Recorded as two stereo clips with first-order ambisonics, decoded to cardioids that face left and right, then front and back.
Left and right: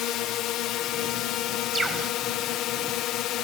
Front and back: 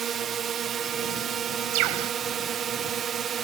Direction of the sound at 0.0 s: 120° left.